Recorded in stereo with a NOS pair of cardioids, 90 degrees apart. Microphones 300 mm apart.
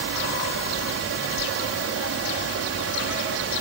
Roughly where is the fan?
Ahead right.